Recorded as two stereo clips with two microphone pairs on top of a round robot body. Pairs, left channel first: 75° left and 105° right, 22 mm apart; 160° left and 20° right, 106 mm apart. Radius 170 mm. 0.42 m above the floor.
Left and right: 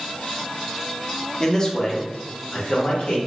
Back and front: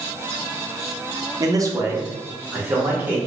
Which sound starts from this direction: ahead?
A man speaking, at 1.4 s.